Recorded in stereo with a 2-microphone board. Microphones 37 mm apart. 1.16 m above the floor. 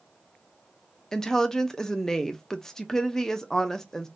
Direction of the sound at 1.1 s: 20° left (ahead or behind).